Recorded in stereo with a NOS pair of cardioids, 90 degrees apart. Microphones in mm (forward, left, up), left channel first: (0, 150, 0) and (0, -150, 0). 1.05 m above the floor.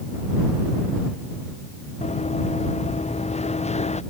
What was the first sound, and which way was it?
Running footsteps, 20° left.